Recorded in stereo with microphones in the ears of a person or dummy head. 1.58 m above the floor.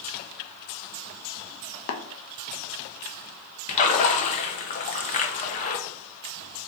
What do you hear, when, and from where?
1.9 s tapping: 70° left (ahead or behind), 0.5 m
3.7 s a splash: 40° left (ahead or behind), 0.6 m